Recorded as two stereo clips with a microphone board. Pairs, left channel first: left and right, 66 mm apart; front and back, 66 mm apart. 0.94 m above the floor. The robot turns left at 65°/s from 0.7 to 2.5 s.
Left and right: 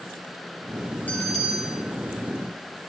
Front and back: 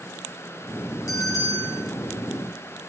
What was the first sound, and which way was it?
A bell, 25° left.